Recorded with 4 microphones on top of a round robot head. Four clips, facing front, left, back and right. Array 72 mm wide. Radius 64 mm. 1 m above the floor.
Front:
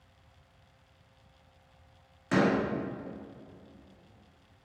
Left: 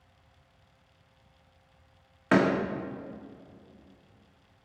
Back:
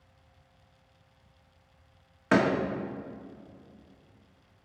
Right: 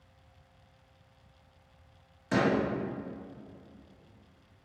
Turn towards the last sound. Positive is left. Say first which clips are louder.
# left 4 dB, back 2 dB
turn(degrees=125)